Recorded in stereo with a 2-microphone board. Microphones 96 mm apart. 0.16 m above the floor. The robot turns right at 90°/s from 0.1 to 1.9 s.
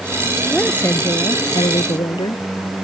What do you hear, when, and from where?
0.5 s a woman speaking: 5° right; by 2.5 s 120° left